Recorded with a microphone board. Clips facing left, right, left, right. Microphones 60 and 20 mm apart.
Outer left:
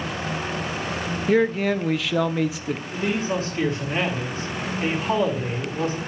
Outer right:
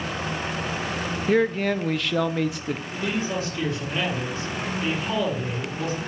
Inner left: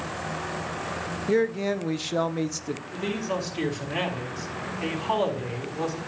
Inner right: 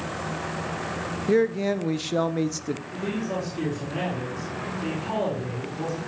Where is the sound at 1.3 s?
Centre (ahead or behind), 0.6 m.